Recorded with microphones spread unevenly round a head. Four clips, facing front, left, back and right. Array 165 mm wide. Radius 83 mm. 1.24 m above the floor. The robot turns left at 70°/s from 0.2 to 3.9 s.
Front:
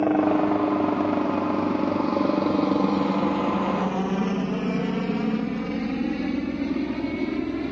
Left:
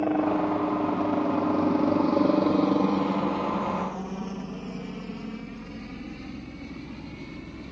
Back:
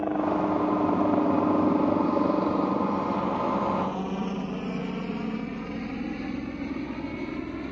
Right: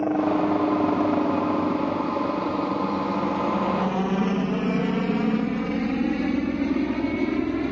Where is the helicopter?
10° right; by 7.7 s 65° right.